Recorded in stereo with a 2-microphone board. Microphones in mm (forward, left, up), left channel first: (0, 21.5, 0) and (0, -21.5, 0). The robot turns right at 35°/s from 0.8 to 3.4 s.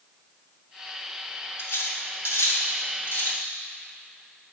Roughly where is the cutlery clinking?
Left.